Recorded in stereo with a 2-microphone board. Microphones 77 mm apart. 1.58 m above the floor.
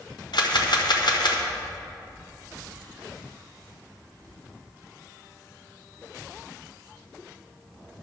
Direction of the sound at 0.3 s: 70° left (ahead or behind).